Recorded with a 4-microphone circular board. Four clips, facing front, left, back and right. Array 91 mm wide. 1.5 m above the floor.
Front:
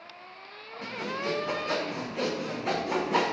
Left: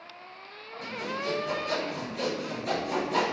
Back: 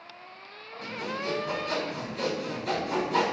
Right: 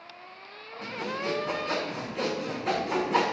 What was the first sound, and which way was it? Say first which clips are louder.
Sawing: right 1 dB, even; 40° right.